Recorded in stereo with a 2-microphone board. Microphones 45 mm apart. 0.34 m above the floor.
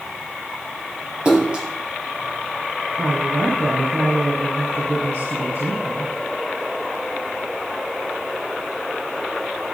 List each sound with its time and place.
1.2 s a splash: 20° right (ahead or behind), 4 m
3.0 s a woman speaking: 80° right, 7.5 m